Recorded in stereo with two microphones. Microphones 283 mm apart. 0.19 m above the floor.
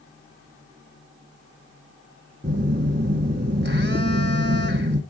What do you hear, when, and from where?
2.4 s a phone buzzing: 35° right (ahead or behind), 1.4 m